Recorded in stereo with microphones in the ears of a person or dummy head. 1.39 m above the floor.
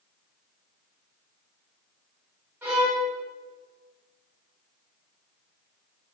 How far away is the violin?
About 6.5 m.